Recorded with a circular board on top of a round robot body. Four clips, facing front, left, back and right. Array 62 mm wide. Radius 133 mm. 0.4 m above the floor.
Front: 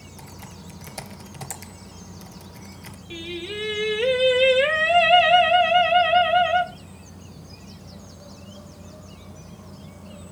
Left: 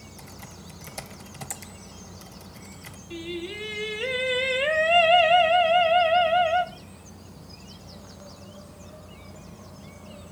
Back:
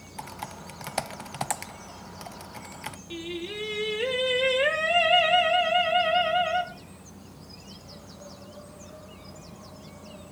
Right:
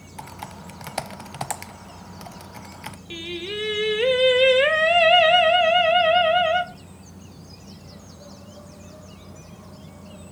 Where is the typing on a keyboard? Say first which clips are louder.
Right 11 dB, back 7 dB; 130° right, 0.9 m.